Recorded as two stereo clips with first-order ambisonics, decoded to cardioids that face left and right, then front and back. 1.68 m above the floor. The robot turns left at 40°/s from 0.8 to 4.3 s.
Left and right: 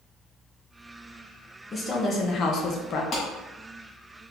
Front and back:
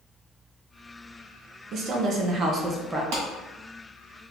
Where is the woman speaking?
160° left, 0.6 m; by 3.0 s 105° left, 0.6 m.